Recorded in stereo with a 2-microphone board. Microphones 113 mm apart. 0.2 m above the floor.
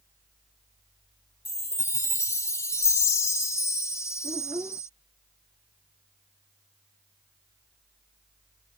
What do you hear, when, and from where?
1.4 s a chime: 25° left (ahead or behind)
4.2 s a child speaking: 30° right (ahead or behind)